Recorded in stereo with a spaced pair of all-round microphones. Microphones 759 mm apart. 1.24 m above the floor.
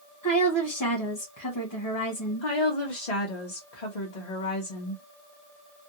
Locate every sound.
0.2 s a woman speaking: 25° left (ahead or behind), 1.1 m
2.4 s a woman speaking: 60° left (ahead or behind), 1.2 m